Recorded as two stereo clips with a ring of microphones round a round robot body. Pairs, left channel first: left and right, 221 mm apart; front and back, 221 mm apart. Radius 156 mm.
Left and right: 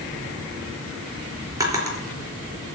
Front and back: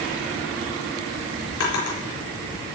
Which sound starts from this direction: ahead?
A drawer, at 1.6 s.